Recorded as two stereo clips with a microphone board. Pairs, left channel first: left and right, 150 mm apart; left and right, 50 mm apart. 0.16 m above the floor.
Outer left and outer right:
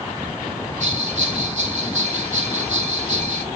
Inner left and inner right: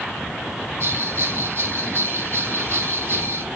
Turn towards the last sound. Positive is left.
turn(degrees=-50)  # may be behind; listen again after turning